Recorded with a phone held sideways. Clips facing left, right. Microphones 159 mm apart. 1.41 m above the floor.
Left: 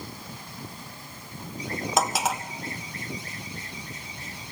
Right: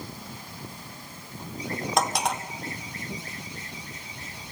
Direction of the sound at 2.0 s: Centre (ahead or behind).